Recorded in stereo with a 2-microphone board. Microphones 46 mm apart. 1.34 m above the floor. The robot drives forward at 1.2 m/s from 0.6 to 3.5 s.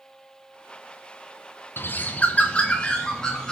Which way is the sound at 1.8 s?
55° left (ahead or behind).